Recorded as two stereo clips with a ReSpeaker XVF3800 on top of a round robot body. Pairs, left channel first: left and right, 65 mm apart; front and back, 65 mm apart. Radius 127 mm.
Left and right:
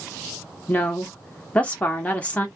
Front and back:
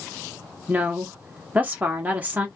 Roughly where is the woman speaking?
Behind left.